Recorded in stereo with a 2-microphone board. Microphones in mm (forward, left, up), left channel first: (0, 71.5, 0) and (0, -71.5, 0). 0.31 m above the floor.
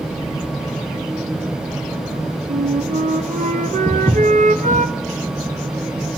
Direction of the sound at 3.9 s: 15° left (ahead or behind).